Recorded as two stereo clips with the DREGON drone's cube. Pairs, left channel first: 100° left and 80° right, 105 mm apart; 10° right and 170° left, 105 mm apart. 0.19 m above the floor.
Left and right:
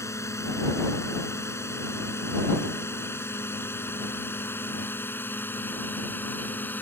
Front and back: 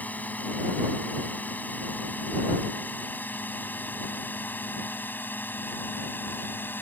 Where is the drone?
55° left; by 6.8 s 45° left.